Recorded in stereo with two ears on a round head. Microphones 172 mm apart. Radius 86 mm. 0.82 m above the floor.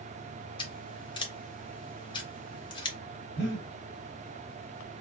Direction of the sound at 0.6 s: 25° left (ahead or behind).